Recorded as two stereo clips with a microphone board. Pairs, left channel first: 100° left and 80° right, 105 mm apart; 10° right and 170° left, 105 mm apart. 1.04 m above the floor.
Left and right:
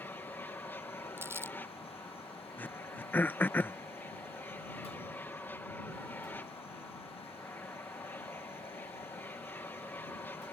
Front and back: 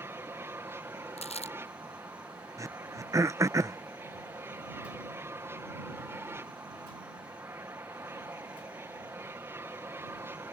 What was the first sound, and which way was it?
An aircraft, 145° left.